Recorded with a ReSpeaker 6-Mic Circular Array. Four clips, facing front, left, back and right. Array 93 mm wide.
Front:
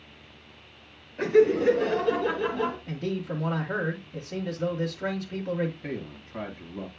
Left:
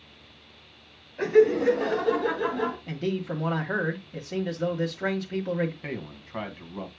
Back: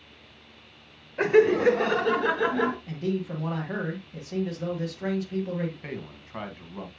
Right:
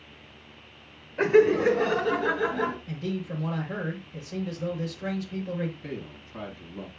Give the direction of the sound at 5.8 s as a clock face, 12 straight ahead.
8 o'clock.